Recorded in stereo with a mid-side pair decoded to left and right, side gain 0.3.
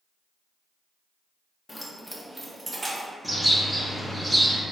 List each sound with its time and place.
1.7 s keys jangling: 25° left, 0.9 m; by 3.1 s 45° right, 1.4 m
3.2 s a bird: 5° right, 1.4 m